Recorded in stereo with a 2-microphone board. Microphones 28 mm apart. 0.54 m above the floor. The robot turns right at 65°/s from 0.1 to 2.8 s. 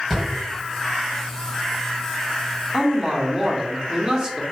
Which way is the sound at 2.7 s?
20° right (ahead or behind).